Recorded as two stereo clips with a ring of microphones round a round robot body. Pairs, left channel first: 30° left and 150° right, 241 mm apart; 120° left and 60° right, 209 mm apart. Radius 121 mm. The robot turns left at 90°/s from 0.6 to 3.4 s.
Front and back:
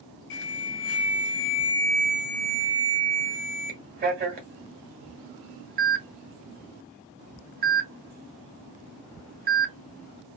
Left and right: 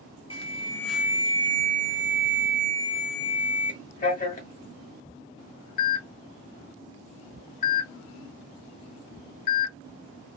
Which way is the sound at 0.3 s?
60° left.